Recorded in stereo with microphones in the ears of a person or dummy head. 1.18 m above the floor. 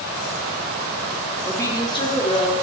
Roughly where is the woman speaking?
Centre.